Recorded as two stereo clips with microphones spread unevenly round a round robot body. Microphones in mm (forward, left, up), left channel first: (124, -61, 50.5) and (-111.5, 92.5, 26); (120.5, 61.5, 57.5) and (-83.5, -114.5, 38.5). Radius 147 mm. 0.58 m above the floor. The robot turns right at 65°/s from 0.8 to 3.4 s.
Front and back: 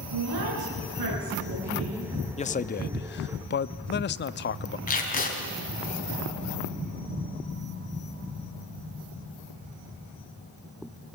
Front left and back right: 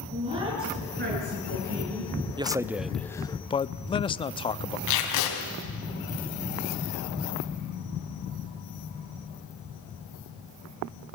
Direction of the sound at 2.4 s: 90° right.